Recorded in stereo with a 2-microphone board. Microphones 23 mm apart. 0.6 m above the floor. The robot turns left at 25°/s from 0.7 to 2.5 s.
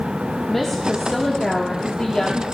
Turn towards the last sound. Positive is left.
turn(degrees=120)